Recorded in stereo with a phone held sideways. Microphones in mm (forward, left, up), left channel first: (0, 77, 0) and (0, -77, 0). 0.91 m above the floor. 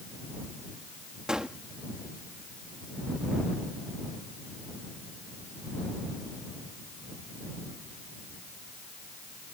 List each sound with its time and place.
1.3 s a gunshot: 5° right (ahead or behind)